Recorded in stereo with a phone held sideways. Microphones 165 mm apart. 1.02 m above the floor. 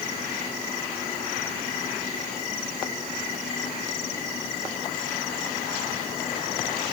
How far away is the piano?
No piano in this recording.